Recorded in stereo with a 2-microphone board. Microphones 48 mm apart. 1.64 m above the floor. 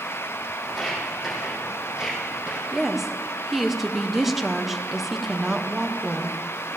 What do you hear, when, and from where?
0.7 s footsteps: 5° right (ahead or behind), 4 m; by 2.6 s 20° right (ahead or behind), 4 m
2.7 s a woman speaking: 5° right (ahead or behind), 1.1 m